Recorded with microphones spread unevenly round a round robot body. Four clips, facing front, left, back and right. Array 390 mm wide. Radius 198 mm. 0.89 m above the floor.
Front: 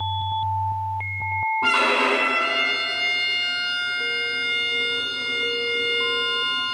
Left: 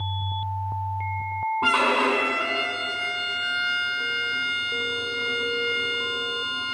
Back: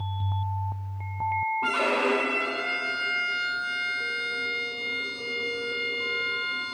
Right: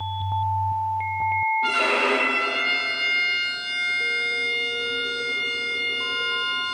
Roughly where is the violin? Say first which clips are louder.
Left 1 dB, front 5 dB; ahead left.